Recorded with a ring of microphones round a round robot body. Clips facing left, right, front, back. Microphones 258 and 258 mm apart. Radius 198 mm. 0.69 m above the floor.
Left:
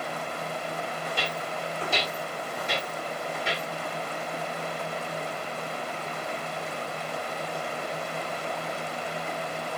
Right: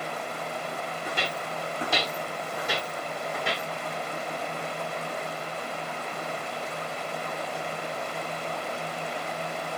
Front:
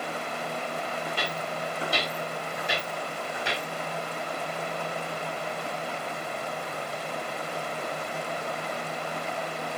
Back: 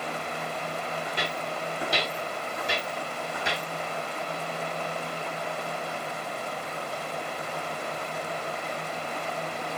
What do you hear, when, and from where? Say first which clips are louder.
1.1 s footsteps: even, even; 100° right, 1.9 m; by 3.6 s 150° right, 1.3 m